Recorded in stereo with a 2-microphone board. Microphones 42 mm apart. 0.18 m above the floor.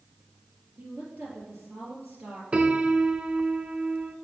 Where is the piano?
25° right (ahead or behind), 0.6 m.